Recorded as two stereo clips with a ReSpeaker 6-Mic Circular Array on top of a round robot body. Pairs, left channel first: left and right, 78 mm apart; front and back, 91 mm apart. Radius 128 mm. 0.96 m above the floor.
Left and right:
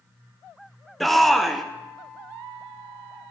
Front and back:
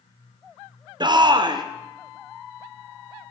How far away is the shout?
About 0.7 m.